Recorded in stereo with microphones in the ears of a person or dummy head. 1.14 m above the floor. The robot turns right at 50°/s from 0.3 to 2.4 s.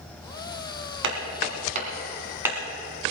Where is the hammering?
75° right (ahead or behind), 3 m; by 2.6 s 20° right (ahead or behind), 3 m.